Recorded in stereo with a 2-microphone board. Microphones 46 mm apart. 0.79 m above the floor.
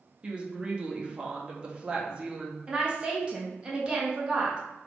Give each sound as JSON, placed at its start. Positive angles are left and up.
{"t": 0.2, "sound": "a woman speaking", "side_deg": -20, "distance_m": 0.8}
{"t": 2.7, "sound": "a woman speaking", "side_deg": -25, "distance_m": 0.9}